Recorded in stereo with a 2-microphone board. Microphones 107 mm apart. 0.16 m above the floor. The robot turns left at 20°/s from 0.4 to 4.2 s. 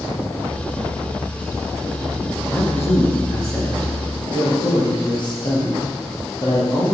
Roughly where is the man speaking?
Behind.